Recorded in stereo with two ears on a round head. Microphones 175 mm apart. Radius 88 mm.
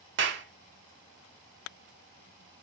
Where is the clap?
60° right (ahead or behind), 1.6 m.